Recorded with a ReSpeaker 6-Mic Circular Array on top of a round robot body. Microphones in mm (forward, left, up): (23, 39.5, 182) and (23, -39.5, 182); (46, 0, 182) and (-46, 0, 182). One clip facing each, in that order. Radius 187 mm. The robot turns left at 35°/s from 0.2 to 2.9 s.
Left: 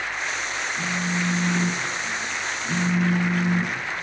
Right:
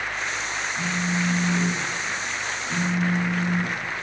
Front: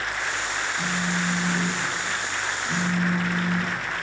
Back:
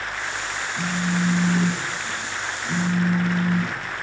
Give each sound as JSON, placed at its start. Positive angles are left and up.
{"t": 0.8, "sound": "a phone buzzing", "azimuth_deg": -170, "distance_m": 2.0}